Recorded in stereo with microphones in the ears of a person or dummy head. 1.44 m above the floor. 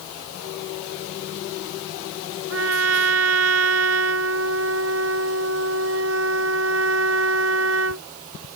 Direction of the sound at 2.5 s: 85° right.